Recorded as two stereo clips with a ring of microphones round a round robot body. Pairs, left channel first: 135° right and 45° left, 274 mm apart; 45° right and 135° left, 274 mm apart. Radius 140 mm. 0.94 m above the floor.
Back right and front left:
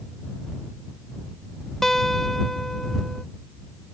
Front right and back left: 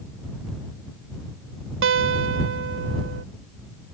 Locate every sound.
1.8 s a guitar: 135° left